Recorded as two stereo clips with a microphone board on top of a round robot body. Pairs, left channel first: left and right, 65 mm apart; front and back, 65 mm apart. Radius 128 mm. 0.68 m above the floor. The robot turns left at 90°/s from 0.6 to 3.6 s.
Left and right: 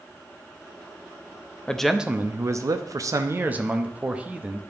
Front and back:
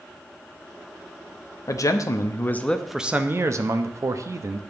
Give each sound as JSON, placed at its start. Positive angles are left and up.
{"t": 1.7, "sound": "a man speaking", "azimuth_deg": 15, "distance_m": 0.7}